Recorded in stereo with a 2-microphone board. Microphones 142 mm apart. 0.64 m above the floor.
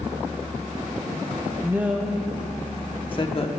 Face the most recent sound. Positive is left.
turn(degrees=45)  # may be behind; listen again after turning